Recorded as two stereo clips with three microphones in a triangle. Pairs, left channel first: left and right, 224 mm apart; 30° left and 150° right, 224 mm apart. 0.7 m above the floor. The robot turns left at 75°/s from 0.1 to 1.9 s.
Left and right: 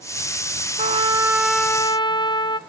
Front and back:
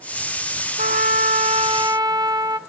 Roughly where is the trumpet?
Behind right.